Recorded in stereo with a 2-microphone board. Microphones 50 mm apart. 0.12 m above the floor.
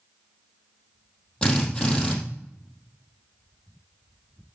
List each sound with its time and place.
1.4 s a drill: 15° left (ahead or behind), 4 m